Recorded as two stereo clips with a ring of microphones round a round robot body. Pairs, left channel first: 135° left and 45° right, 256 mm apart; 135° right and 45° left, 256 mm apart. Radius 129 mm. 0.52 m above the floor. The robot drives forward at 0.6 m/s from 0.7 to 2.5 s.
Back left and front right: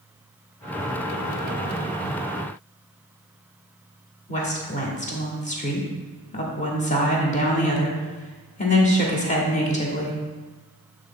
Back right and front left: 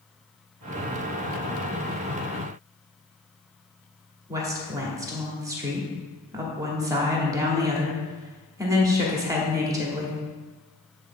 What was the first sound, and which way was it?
A woman speaking, 110° left.